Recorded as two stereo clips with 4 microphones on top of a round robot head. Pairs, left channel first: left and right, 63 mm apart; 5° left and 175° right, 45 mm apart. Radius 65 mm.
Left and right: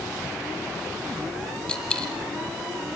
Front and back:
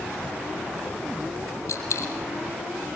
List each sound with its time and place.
1.7 s a dropped coin: 15° left, 4.5 m